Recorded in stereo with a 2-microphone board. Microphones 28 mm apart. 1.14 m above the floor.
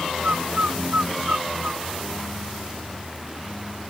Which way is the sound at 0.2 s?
80° right.